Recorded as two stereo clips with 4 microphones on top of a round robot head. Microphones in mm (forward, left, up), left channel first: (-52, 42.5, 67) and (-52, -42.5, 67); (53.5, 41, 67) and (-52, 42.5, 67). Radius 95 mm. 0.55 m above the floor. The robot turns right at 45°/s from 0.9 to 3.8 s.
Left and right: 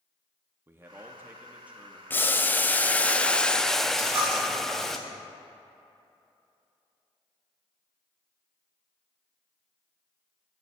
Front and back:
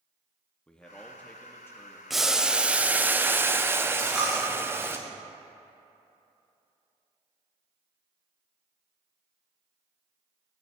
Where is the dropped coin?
95° right, 2.5 m.